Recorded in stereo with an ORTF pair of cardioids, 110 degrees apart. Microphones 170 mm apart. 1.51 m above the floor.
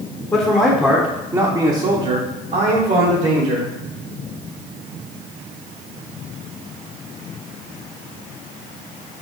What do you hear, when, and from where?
0.3 s a man speaking: 20° left, 1.1 m; by 3.7 s 75° right, 1.7 m